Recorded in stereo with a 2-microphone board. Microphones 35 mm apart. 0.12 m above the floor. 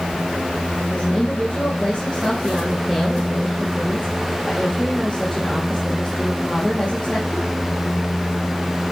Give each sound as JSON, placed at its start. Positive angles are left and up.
{"t": 0.9, "sound": "a woman speaking", "side_deg": 5, "distance_m": 4.0}